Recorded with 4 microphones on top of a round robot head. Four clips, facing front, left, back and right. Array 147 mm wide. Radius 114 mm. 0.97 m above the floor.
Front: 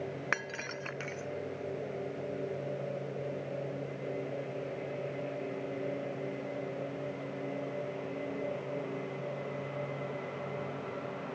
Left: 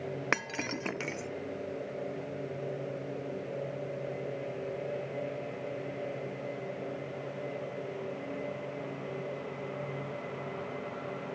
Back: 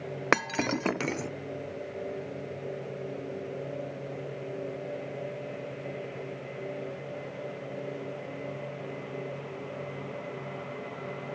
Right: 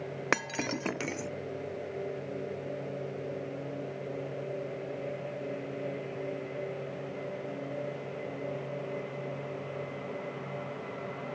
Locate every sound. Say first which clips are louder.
0.3 s breaking glass: right 5 dB, back 10 dB; 170° right